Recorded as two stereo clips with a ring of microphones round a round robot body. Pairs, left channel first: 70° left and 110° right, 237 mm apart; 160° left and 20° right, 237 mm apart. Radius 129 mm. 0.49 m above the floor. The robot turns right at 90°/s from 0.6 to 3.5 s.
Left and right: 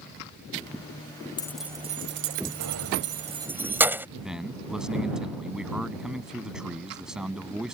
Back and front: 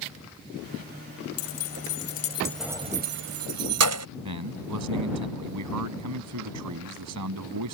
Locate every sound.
1.4 s keys jangling: 140° left; by 4.1 s 30° right
4.2 s a man speaking: 25° right